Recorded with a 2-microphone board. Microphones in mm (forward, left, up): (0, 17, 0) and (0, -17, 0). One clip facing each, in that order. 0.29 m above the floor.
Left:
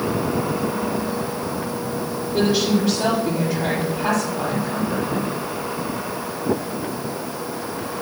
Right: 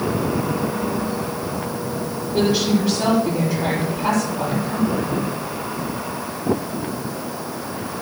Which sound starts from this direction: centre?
A woman speaking, at 2.3 s.